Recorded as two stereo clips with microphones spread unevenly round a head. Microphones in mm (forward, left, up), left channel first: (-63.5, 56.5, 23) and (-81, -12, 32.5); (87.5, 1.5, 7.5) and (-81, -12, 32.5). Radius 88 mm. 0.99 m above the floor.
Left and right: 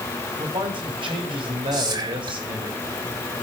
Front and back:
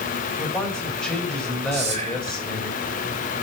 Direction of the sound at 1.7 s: 120° right.